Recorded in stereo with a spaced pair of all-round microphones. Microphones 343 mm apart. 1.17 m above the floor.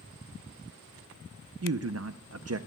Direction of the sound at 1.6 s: 45° right (ahead or behind).